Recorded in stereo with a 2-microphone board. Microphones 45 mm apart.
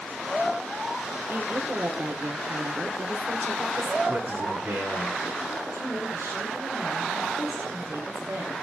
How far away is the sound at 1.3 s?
About 2.5 m.